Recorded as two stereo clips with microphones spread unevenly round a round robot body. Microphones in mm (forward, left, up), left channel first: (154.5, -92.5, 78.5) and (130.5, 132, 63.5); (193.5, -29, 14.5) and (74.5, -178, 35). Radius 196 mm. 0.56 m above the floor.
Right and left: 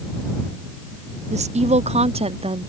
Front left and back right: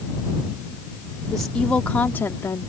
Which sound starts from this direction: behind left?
A woman speaking, at 1.3 s.